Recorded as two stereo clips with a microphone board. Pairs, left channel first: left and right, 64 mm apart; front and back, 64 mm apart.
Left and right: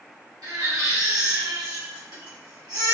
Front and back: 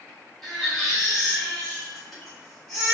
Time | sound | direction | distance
0.4 | a baby crying | 85° right | 1.7 m